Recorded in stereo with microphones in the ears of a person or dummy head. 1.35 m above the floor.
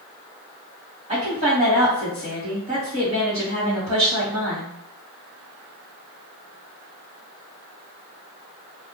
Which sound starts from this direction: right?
A woman speaking, at 1.1 s.